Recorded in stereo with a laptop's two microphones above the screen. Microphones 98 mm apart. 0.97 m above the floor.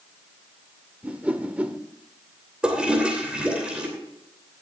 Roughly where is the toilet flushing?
Centre.